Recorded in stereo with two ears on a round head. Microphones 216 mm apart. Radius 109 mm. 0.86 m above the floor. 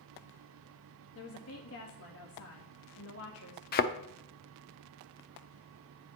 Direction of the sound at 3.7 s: 40° left (ahead or behind).